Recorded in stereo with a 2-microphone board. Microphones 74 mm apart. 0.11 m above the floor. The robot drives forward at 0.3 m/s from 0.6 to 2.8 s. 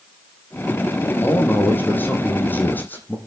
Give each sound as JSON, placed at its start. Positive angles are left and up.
{"t": 1.2, "sound": "a man speaking", "side_deg": 25, "distance_m": 4.5}